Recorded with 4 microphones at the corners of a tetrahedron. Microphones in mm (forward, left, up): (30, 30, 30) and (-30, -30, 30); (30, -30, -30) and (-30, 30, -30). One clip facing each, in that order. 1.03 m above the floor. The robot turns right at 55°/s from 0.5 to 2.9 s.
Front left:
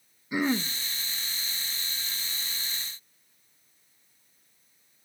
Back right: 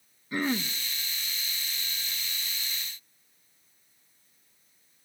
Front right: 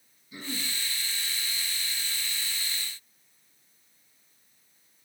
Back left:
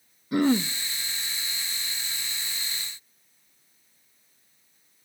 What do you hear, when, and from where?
0.3 s throat clearing: 125° left, 1.0 m; by 0.7 s 140° left, 1.0 m